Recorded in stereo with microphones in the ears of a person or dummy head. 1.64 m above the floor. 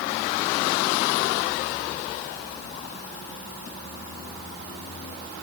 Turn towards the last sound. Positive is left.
No sound to turn to.